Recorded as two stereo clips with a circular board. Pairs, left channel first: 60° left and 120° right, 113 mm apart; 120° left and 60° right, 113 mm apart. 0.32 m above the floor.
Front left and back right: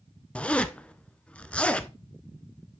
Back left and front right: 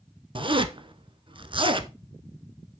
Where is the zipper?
20° right, 0.7 m.